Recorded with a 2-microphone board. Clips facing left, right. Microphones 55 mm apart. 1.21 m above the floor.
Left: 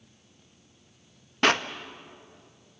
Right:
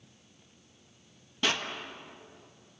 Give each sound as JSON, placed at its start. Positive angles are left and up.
{"t": 1.4, "sound": "a clap", "side_deg": 55, "distance_m": 1.0}